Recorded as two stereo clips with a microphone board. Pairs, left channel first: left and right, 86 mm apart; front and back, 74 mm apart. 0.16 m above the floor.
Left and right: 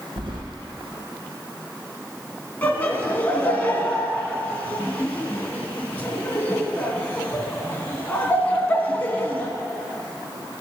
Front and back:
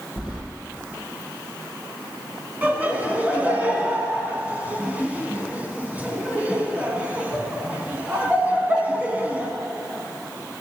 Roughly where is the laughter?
Behind left.